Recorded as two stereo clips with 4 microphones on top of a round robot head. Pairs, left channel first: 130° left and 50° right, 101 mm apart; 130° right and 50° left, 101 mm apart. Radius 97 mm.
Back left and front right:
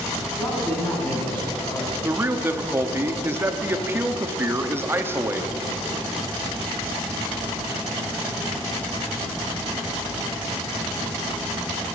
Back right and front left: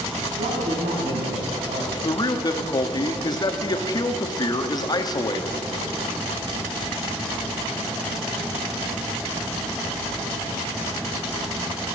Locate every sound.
0.4 s a man speaking: 60° left, 4.5 m
2.0 s a man speaking: 110° right, 1.2 m